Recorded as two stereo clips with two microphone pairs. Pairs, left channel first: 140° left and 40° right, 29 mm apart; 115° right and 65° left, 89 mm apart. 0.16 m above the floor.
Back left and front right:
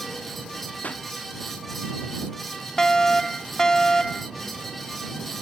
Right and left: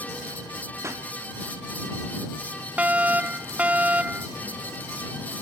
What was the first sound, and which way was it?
A pop, 125° left.